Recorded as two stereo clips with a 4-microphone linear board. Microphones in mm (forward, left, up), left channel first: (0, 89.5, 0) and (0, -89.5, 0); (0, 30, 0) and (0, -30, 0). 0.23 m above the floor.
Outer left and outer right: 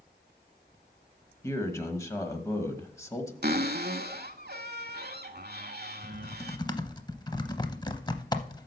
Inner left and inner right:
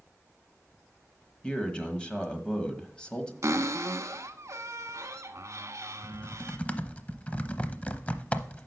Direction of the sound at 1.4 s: 15° left (ahead or behind).